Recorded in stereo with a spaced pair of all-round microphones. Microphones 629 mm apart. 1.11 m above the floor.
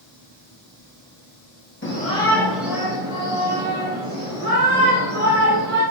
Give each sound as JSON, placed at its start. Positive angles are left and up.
{"t": 1.8, "sound": "a shout", "side_deg": 20, "distance_m": 1.3}